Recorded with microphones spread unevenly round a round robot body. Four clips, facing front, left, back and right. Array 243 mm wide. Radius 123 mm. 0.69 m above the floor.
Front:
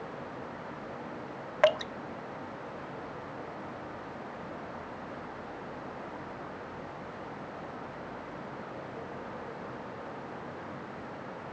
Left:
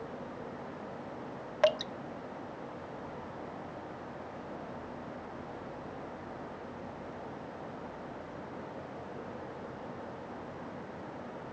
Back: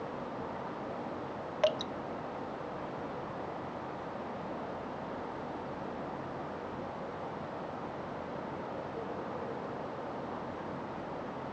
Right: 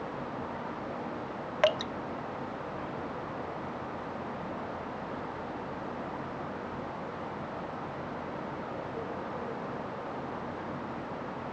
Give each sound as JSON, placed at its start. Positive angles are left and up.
{"t": 1.6, "sound": "dripping", "azimuth_deg": 5}